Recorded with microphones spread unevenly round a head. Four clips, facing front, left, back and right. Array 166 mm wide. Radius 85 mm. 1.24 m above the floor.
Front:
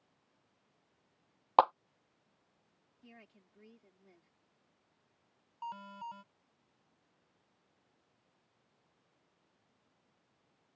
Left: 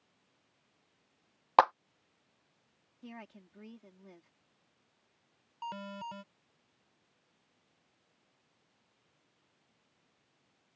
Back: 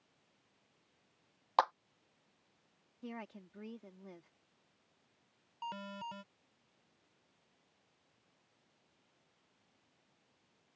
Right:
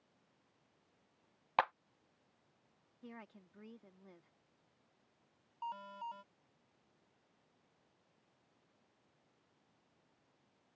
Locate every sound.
1.6 s a clap: 55° left
3.0 s a woman speaking: straight behind
5.6 s an alarm: 125° left